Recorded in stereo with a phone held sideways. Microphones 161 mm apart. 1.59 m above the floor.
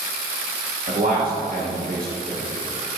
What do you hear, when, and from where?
0.9 s a man speaking: 65° right (ahead or behind), 1.8 m